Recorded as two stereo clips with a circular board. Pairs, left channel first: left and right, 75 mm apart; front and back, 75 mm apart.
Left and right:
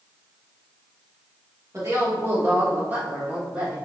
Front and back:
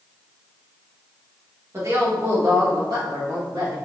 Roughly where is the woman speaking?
Behind right.